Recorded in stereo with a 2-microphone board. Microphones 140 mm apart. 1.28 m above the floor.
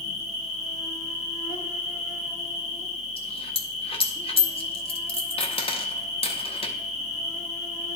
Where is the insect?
55° left (ahead or behind), 1.4 m.